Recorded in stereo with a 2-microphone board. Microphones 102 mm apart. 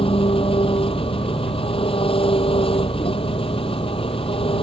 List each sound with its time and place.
0.0 s an engine running: 65° left (ahead or behind)